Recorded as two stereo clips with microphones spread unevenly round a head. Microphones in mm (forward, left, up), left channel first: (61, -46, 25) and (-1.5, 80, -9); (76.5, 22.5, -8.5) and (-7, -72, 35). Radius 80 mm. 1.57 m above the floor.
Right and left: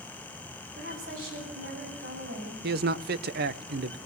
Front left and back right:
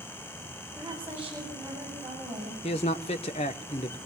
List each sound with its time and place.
0.8 s a woman speaking: 150° left, 9.5 m
2.6 s a man speaking: 105° left, 1.0 m